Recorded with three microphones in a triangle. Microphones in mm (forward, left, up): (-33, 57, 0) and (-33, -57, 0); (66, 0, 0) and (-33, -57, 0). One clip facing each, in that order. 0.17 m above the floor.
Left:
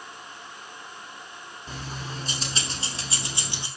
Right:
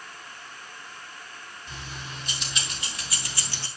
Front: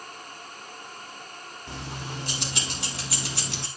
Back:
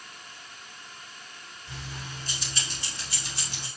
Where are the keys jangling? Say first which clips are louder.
Left 4 dB, front 5 dB; 45° left, 5 m; by 3.7 s 15° left, 2.5 m.